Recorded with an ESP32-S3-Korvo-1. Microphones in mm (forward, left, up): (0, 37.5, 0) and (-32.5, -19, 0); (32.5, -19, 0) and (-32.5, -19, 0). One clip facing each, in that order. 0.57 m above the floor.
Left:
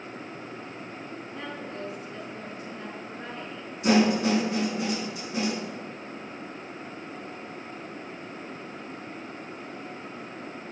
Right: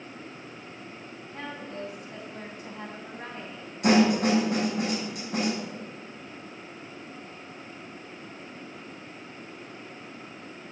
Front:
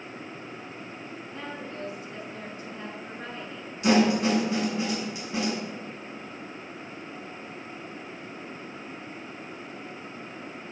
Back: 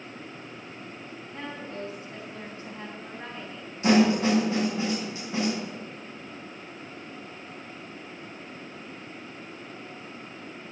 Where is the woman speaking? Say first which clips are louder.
Right 2 dB, back 2 dB; 125° right, 3.5 m.